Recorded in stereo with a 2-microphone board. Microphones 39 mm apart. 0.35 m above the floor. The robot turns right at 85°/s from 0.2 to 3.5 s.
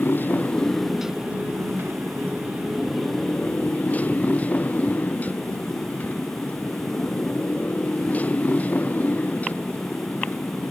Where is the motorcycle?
120° left; by 10.7 s 45° left.